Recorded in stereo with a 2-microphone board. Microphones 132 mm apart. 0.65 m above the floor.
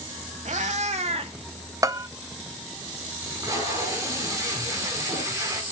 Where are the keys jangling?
I don't hear keys jangling.